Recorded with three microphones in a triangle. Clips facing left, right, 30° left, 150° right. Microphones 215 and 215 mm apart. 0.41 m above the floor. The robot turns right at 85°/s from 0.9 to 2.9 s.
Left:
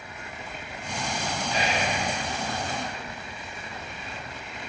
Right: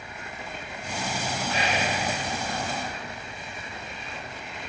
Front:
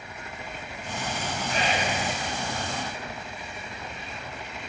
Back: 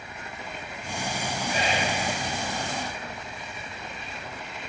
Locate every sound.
1.5 s whispering: 75° right, 5 m; by 1.9 s 35° right, 5 m